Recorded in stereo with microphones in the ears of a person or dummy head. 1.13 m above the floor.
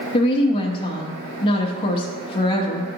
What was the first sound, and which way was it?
A woman speaking, 30° left (ahead or behind).